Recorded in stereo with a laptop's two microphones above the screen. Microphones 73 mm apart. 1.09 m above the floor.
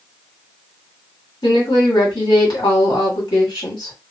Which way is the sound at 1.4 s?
75° left (ahead or behind).